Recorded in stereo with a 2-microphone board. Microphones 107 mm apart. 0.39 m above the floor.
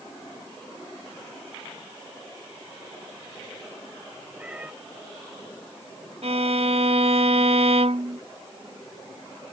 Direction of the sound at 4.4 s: 10° right (ahead or behind).